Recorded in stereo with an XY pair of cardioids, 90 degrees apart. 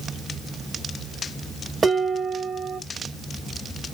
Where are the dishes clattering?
30° right, 2.5 m.